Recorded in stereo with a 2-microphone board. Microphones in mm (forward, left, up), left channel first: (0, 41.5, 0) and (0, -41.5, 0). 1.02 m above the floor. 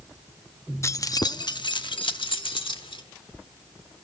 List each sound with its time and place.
0.8 s keys jangling: 35° left (ahead or behind), 0.7 m; by 3.0 s 85° left, 1.8 m